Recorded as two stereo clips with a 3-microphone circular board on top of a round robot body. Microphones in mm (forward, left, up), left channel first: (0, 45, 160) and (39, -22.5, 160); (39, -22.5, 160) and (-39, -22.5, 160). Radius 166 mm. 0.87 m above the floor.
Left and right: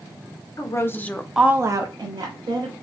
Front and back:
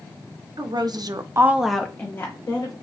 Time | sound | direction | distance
0.6 | a woman speaking | 165° left | 0.8 m